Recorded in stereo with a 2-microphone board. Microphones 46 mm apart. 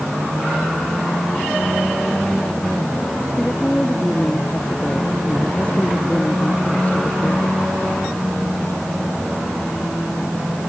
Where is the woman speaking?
20° left (ahead or behind); by 7.7 s 30° left (ahead or behind).